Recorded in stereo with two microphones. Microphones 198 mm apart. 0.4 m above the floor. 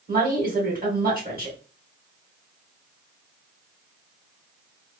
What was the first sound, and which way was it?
A woman speaking, 50° right (ahead or behind).